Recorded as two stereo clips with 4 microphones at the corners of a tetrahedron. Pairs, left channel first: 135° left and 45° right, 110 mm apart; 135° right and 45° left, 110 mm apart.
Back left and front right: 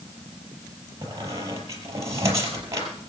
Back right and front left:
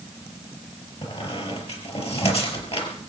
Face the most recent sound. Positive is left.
turn(degrees=-105)